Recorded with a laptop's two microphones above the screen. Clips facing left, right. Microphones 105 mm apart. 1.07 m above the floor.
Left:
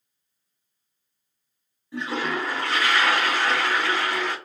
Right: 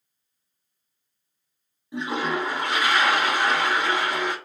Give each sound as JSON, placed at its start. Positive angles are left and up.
{"t": 1.9, "sound": "a toilet flushing", "side_deg": -15, "distance_m": 0.5}